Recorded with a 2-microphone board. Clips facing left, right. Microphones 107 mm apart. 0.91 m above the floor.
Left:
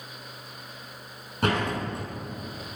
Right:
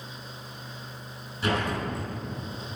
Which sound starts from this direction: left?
A door slam, at 1.4 s.